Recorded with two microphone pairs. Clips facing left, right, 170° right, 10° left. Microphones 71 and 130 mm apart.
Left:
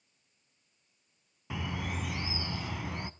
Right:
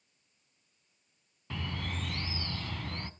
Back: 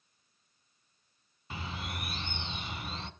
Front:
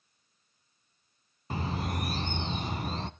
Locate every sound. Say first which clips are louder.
1.5 s a bird: left 2 dB, front 8 dB; 15° left, 0.5 m